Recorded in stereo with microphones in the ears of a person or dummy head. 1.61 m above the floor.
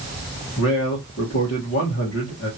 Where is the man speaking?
60° left (ahead or behind), 1.8 m.